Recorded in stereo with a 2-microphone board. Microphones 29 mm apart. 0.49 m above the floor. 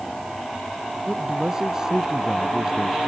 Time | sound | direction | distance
1.1 | a man speaking | 25° right (ahead or behind) | ?